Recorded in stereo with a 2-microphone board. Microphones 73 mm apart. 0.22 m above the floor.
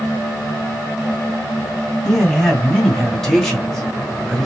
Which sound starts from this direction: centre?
A man speaking, at 2.0 s.